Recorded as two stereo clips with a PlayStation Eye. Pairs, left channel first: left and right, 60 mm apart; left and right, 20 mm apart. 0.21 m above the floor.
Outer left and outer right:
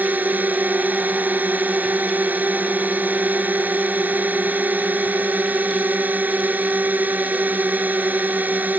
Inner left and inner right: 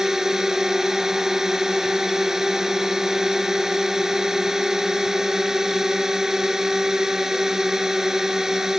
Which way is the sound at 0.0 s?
30° right (ahead or behind).